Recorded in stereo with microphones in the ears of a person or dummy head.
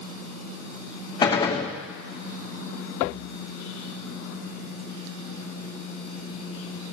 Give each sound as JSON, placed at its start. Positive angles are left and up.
{"t": 1.2, "sound": "a gunshot", "side_deg": 25, "distance_m": 0.7}